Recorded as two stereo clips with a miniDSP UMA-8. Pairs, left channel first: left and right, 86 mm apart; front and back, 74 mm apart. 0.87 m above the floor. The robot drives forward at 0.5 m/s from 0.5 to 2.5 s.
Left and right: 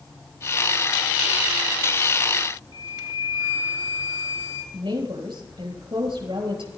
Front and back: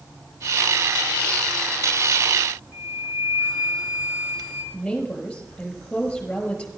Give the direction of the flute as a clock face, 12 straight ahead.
4 o'clock.